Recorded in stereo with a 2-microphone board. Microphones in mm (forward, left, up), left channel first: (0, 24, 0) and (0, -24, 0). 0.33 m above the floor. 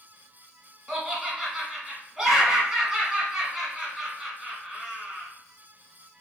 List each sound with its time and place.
0.9 s laughter: 15° right (ahead or behind), 1.1 m